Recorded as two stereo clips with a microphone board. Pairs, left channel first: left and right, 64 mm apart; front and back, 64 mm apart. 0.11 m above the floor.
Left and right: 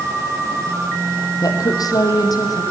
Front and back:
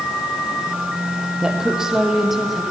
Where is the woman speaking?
105° left, 3.5 m; by 2.6 s 95° left, 4 m.